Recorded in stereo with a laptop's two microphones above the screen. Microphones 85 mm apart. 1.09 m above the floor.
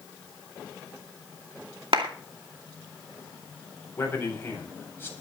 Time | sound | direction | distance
1.9 | a clap | 75° right (ahead or behind) | 2.5 m
4.0 | a man speaking | 25° left (ahead or behind) | 8.5 m